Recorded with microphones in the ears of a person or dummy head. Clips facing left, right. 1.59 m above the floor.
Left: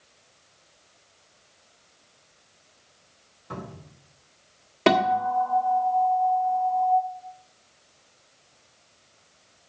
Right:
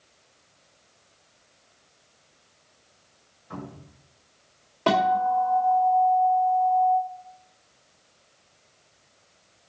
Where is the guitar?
30° left (ahead or behind), 1.8 m.